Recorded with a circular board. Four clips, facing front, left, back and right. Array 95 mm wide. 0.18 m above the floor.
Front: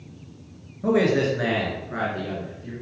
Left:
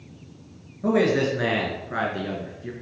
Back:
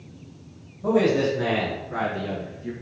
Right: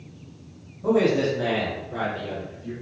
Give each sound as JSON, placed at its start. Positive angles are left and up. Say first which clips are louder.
{"t": 0.8, "sound": "a man speaking", "louder": "even, even", "azimuth_deg": 45, "distance_m": 2.5}